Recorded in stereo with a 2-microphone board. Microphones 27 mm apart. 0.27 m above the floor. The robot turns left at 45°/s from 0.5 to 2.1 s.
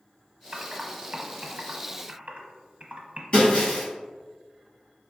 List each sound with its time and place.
0.5 s typing on a keyboard: 40° right (ahead or behind), 0.8 m; by 3.2 s 45° right (ahead or behind), 0.8 m
3.3 s breaking glass: 35° left (ahead or behind), 1.9 m